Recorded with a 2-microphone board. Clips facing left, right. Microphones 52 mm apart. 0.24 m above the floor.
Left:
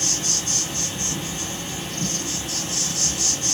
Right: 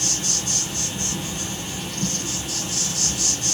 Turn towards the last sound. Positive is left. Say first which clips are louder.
# even
turn(degrees=35)  # may be behind; listen again after turning